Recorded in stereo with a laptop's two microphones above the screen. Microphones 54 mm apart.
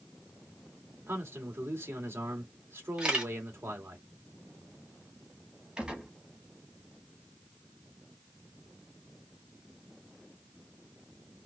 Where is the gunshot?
15° right (ahead or behind), 1.1 m.